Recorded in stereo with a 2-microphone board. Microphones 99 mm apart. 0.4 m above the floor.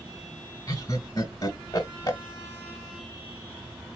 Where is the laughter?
40° left (ahead or behind), 1.4 m.